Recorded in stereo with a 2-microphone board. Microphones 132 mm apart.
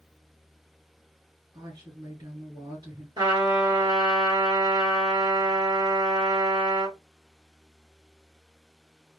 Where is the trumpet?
35° right (ahead or behind), 1.4 m.